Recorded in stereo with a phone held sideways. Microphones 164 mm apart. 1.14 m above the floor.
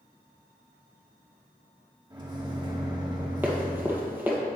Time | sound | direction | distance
2.1 | a microwave | 25° right (ahead or behind) | 1.4 m
3.4 | running footsteps | 10° right (ahead or behind) | 1.8 m